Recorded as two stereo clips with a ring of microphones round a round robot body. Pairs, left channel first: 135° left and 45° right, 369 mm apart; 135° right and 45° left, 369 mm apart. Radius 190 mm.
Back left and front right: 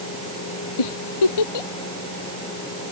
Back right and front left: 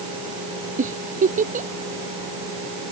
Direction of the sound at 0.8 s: 115° left.